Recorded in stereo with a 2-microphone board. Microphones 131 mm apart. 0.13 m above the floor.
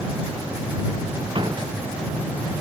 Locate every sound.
1.4 s a door slam: 35° right (ahead or behind)